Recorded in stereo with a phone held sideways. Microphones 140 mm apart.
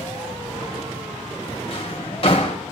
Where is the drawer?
50° left (ahead or behind), 2.5 m.